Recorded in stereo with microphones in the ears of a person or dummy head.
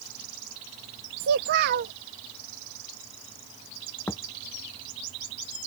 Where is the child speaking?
50° right (ahead or behind).